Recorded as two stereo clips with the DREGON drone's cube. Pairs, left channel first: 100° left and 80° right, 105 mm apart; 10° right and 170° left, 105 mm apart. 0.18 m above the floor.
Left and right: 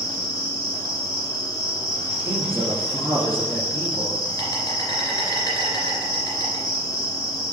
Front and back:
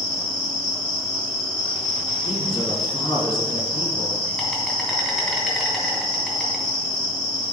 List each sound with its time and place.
0.0 s an insect: 70° left, 2.5 m
2.2 s a man speaking: 15° right, 2 m